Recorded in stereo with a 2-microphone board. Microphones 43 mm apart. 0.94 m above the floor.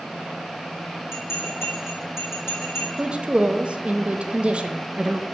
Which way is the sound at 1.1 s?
80° left.